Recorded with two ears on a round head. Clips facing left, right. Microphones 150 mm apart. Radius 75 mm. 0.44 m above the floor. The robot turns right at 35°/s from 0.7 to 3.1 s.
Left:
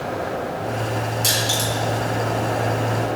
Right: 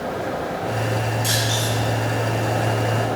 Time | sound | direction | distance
1.2 | crushing | 45° left (ahead or behind) | 7.5 m